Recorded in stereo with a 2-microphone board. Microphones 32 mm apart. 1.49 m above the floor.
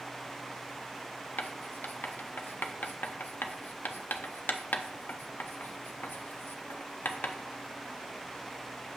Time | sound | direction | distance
1.4 | writing | 80° left | 0.5 m